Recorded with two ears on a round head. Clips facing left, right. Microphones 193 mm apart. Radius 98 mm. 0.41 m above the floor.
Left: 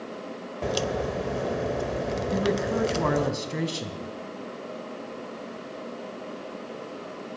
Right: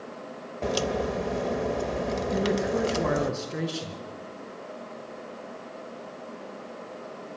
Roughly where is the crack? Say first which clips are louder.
Right 1 dB; centre.